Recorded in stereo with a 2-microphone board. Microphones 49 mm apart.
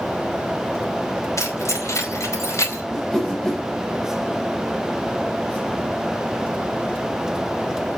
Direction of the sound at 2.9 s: 5° left (ahead or behind).